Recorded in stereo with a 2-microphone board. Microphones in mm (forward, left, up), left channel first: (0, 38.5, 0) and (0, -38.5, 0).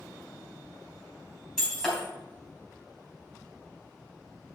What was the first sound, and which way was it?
Breaking glass, 5° left (ahead or behind).